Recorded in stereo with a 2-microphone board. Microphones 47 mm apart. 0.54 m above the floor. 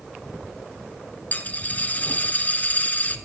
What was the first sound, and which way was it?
A dropped coin, 35° left (ahead or behind).